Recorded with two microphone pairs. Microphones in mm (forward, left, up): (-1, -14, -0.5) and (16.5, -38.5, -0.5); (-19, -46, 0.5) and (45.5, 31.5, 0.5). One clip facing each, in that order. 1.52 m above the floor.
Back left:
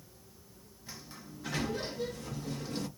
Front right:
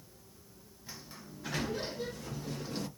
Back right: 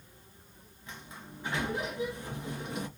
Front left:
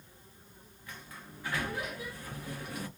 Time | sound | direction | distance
0.9 | a sliding door | 135° right | 0.7 m